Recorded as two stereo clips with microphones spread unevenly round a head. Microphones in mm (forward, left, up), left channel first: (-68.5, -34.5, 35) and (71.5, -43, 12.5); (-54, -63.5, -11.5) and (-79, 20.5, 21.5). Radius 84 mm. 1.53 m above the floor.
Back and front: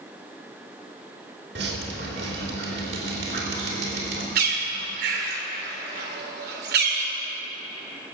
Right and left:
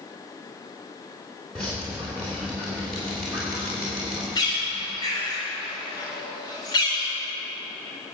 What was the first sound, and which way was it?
Dripping, 20° left.